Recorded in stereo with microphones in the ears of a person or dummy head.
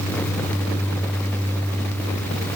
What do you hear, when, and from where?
Only background noise.